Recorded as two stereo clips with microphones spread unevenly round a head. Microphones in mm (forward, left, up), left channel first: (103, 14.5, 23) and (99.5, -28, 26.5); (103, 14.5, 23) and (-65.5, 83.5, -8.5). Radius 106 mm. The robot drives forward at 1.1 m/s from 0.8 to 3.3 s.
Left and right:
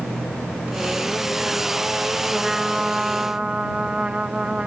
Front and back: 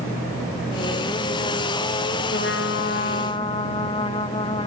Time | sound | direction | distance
2.3 | a trumpet | 10° right | ?